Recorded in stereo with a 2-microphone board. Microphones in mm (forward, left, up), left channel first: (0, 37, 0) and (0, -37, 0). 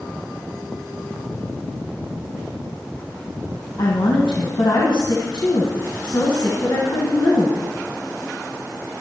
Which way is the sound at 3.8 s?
70° left (ahead or behind).